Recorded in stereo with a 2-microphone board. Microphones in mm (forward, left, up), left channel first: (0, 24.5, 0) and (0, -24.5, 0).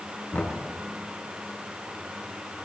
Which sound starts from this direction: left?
Knocking, at 0.3 s.